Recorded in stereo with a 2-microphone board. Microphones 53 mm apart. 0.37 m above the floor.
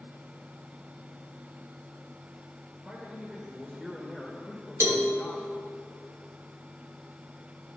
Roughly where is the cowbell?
Right.